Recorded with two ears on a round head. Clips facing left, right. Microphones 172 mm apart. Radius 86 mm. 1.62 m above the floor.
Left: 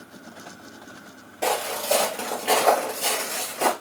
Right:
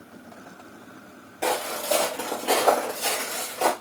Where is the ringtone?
No ringtone in this recording.